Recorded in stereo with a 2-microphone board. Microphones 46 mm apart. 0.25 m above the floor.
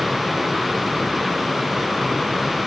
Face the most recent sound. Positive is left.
No sound to turn to.